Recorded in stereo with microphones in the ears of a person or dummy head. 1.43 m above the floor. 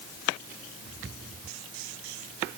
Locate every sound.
Only background noise.